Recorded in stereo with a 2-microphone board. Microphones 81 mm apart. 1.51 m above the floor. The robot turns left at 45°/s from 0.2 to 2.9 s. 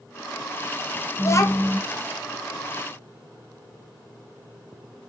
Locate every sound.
1.2 s a child speaking: 30° left (ahead or behind), 0.5 m; by 1.8 s 55° left (ahead or behind), 0.5 m